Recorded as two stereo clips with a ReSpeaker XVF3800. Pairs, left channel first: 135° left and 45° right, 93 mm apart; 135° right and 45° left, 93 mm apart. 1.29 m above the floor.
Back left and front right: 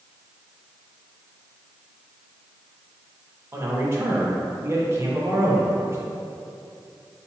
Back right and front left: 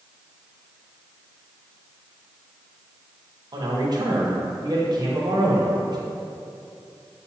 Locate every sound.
3.5 s a man speaking: 10° left, 0.8 m